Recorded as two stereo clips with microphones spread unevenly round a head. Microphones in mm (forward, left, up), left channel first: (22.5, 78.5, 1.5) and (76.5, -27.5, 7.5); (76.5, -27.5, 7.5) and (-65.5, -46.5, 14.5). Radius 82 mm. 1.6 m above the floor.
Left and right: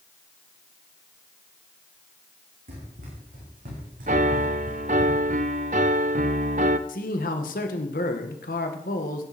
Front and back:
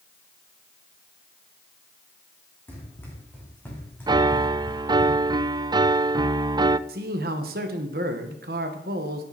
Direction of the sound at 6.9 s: 150° left.